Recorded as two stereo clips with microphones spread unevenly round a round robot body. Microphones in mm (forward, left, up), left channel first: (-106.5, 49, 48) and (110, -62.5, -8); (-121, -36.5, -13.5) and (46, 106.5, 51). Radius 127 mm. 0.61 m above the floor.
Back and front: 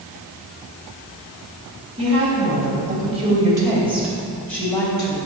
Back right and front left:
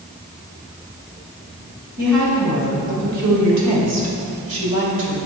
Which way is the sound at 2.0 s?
10° left.